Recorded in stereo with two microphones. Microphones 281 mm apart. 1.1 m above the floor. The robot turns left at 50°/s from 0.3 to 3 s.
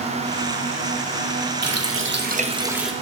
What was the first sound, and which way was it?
A running tap, 115° right.